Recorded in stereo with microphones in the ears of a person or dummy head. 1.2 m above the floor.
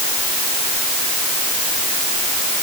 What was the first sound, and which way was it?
Only background noise.